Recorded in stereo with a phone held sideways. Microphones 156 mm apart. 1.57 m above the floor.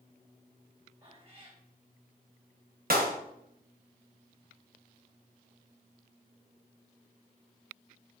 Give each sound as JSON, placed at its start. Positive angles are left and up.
{"t": 1.0, "sound": "a cat meowing", "side_deg": -45, "distance_m": 3.5}
{"t": 2.9, "sound": "a clap", "side_deg": -70, "distance_m": 1.5}